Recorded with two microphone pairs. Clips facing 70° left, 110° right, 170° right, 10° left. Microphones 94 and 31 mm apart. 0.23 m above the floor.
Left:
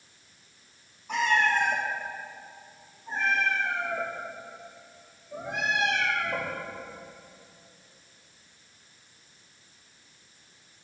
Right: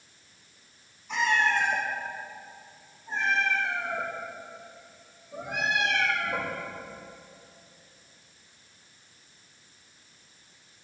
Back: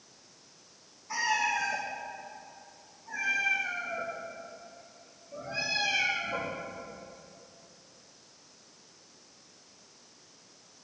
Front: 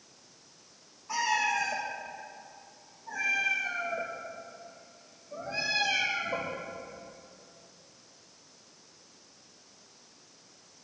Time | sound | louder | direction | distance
1.1 | a cat meowing | left 1 dB, front 1 dB | 40° left | 3 m